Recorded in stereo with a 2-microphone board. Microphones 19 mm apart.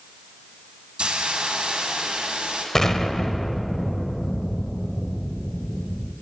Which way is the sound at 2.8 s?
25° left (ahead or behind).